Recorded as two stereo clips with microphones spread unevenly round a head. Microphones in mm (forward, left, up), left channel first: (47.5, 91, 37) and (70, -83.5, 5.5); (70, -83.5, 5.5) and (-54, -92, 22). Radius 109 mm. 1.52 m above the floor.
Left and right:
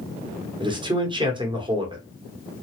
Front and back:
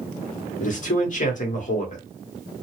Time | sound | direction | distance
0.6 | a man speaking | 15° right | 1.1 m